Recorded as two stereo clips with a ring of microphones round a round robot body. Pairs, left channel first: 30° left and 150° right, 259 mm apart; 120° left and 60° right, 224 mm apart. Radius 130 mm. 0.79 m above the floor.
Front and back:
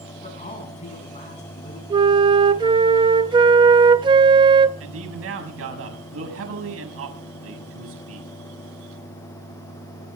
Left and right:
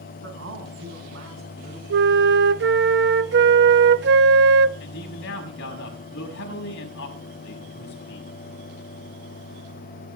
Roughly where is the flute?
Right.